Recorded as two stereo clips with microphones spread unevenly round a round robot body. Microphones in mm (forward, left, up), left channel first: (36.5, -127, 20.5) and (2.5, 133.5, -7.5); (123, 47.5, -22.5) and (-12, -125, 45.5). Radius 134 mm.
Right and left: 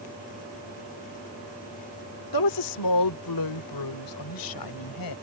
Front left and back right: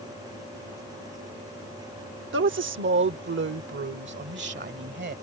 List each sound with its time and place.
2.3 s a woman speaking: 95° right; by 5.2 s 90° right